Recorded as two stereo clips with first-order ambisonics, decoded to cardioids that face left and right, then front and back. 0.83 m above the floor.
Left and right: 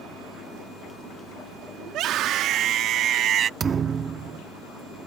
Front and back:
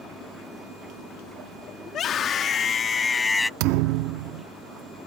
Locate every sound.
1.9 s a scream: 50° right; by 3.5 s 80° right
3.6 s a thud: 155° right